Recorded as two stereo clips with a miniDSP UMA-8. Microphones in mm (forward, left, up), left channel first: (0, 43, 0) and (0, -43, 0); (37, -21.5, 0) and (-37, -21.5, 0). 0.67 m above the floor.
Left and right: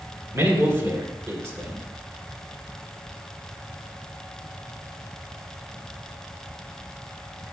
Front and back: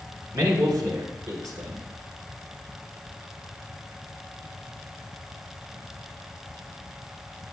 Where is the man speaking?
140° right, 1.8 m.